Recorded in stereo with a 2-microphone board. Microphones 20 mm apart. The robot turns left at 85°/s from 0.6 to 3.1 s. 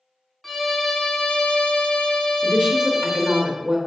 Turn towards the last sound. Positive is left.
turn(degrees=-175)